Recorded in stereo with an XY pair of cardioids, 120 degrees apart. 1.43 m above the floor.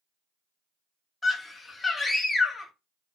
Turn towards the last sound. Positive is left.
turn(degrees=25)